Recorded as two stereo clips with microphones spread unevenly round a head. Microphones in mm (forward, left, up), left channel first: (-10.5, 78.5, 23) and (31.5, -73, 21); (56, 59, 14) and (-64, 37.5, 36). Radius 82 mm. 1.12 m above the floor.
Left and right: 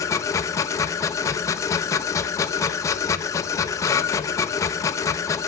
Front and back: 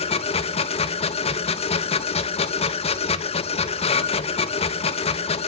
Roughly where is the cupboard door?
No cupboard door in this recording.